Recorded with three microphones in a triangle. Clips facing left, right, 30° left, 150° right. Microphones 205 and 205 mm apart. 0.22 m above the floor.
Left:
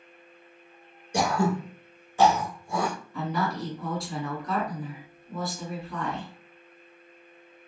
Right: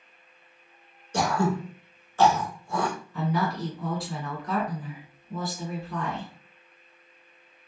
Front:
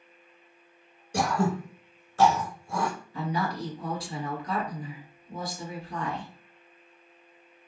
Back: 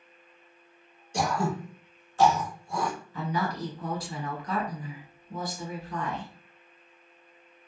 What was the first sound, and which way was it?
Throat clearing, 15° left.